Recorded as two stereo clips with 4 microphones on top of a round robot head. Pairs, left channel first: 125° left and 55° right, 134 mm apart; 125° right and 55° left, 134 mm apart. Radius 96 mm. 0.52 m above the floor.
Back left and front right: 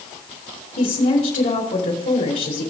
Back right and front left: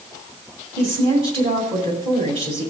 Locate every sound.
0.8 s a woman speaking: 105° left, 6.5 m